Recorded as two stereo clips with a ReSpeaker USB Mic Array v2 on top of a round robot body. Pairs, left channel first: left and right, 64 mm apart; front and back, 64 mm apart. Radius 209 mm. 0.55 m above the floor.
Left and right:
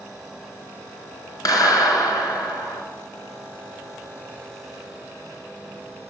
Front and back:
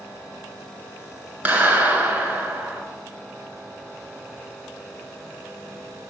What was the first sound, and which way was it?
A clap, 120° left.